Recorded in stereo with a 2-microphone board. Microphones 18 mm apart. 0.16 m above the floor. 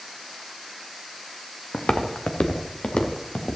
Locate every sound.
1.7 s footsteps: 70° left (ahead or behind), 1.5 m; by 3.6 s 75° left (ahead or behind), 2.5 m